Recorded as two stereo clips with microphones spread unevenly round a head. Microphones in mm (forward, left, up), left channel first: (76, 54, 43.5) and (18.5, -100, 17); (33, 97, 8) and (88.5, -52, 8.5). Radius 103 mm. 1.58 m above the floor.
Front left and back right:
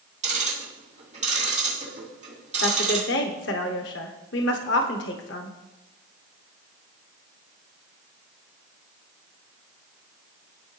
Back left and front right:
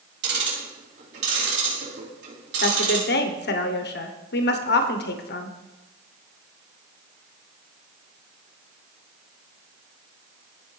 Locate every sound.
0.2 s ticking: 65° right, 4 m
2.6 s a woman speaking: 100° left, 1.1 m